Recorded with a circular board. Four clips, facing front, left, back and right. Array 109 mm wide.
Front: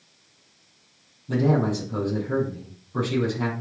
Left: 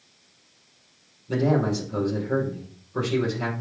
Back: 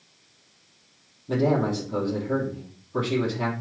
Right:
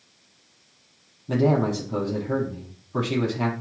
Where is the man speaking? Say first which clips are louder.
Right 1 dB, front 1 dB; 105° right, 5.5 m.